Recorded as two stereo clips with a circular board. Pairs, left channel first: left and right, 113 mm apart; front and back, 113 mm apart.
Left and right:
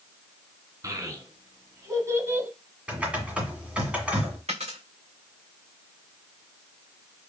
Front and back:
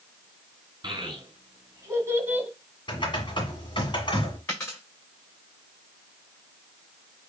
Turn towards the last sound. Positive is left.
turn(degrees=-70)